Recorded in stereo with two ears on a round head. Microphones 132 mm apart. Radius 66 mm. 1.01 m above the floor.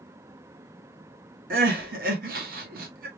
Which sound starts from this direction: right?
Crying, at 1.5 s.